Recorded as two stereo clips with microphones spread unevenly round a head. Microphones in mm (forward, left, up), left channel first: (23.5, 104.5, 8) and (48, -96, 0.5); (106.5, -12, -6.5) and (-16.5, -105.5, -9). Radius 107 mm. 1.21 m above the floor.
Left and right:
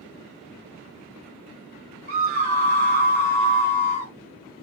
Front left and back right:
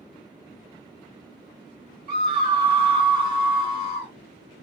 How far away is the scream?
About 1.0 m.